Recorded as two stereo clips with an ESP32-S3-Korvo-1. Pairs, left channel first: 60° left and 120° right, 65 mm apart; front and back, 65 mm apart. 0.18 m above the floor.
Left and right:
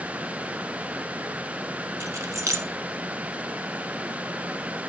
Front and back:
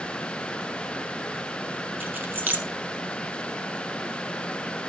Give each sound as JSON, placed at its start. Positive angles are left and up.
{"t": 2.0, "sound": "keys jangling", "azimuth_deg": -125, "distance_m": 1.3}